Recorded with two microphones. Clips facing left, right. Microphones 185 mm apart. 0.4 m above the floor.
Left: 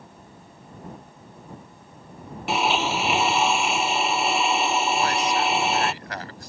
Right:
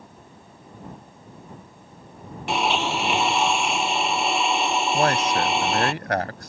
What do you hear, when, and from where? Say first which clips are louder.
2.5 s a blender: even; centre (ahead or behind)
4.9 s a man speaking: right 2 dB; 60° right (ahead or behind)